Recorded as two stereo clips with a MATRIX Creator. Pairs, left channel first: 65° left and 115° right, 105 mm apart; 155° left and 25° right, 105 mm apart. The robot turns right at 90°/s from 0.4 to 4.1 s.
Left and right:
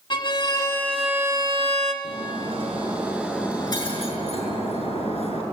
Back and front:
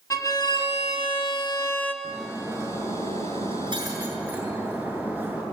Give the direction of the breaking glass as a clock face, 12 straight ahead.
4 o'clock.